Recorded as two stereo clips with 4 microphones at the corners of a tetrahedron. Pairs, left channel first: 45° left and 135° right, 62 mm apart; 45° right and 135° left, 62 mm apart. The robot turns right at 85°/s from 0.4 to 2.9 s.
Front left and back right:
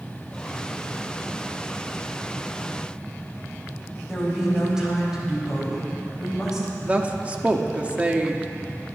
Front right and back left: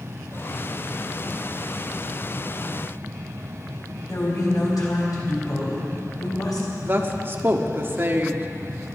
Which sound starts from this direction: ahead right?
A woman speaking, at 4.1 s.